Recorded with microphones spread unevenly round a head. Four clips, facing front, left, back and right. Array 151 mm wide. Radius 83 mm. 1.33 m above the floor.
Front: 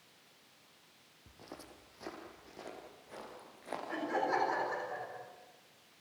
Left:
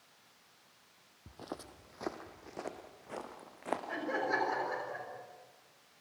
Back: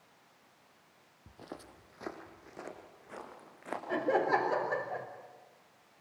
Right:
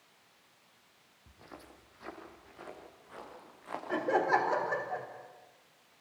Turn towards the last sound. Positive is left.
turn(degrees=-145)